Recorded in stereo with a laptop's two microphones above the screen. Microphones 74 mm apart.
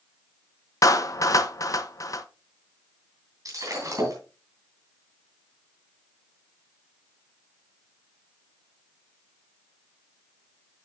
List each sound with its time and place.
0.8 s a clap: 50° left (ahead or behind), 0.6 m
3.5 s breaking glass: 50° right (ahead or behind), 2.5 m